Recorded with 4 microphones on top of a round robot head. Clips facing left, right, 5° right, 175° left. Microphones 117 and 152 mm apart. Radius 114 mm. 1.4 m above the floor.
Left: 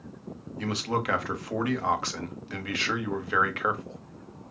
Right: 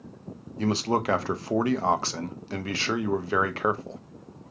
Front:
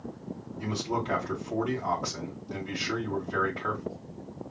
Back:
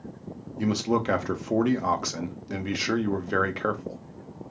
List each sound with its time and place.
0.6 s a man speaking: 145° right, 0.7 m